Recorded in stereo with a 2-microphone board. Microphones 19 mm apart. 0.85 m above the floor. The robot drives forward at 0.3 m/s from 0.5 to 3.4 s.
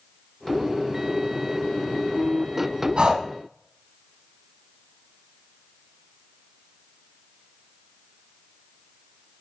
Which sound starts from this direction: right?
Breathing, at 3.0 s.